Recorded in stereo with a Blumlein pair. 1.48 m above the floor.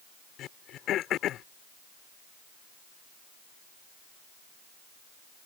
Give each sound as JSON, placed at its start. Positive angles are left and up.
{"t": 0.4, "sound": "throat clearing", "azimuth_deg": 30}